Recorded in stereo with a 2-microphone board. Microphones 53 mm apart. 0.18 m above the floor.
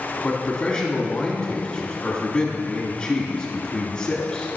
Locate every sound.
0.2 s a man speaking: 20° left (ahead or behind), 1.3 m